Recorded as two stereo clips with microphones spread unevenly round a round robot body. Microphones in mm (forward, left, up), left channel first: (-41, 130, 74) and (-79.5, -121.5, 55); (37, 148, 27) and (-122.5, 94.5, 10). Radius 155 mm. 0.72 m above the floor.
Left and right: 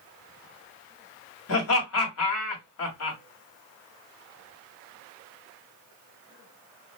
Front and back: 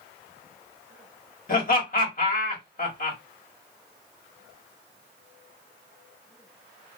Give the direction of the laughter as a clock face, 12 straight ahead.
10 o'clock.